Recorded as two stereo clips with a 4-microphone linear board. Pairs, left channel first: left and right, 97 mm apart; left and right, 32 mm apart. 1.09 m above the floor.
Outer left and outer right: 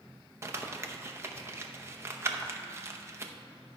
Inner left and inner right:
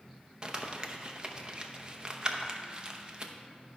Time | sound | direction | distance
0.4 | crumpling | 30° right (ahead or behind) | 0.7 m